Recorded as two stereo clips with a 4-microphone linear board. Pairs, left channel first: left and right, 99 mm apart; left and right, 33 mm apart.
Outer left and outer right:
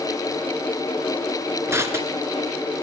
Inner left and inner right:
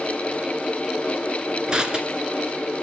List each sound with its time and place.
1.7 s crushing: 25° right (ahead or behind), 1.8 m